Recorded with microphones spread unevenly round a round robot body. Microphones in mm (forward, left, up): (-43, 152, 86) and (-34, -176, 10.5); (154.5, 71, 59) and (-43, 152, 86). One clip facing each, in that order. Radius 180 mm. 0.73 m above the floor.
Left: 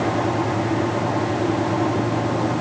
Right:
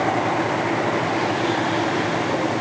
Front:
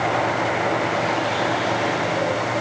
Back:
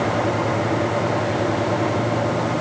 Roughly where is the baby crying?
I don't hear a baby crying.